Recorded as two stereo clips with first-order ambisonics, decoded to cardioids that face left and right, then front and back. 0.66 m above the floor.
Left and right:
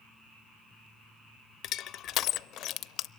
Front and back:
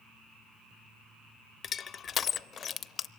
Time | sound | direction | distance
1.6 | crushing | 55° left | 0.5 m